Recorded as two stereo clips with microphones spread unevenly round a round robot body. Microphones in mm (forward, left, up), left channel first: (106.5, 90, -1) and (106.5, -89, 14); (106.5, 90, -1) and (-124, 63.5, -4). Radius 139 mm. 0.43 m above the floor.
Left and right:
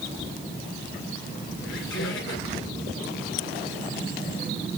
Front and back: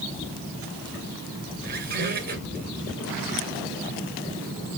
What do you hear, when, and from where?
1.6 s a squeak: 135° left, 2 m